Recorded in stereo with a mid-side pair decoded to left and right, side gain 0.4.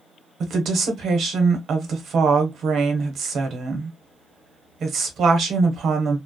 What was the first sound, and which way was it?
A woman speaking, 65° right.